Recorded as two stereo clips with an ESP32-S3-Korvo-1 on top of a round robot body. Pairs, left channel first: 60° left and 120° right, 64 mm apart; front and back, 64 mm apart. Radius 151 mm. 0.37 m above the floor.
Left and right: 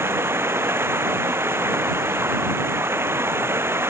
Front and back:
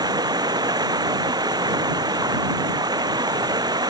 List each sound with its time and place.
0.0 s running water: 170° right